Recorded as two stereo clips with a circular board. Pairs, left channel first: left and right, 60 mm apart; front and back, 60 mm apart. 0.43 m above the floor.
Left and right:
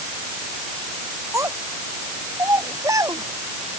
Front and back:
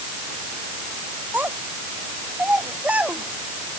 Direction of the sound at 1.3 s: 115° right.